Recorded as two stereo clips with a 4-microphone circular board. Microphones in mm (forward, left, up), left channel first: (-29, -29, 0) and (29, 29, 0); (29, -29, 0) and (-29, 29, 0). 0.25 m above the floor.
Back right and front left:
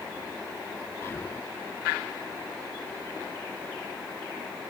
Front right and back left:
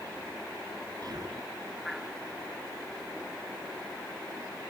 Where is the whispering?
165° left.